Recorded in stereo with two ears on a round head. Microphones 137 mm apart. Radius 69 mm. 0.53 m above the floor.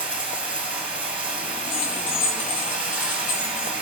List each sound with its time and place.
0.0 s running water: 10° right (ahead or behind), 1.2 m
1.7 s keys jangling: 55° left (ahead or behind), 4.5 m